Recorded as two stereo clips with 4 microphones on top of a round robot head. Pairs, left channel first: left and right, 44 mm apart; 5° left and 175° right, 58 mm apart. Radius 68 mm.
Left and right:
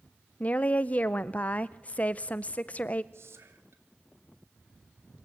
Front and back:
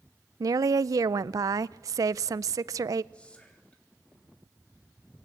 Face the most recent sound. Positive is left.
turn(degrees=-70)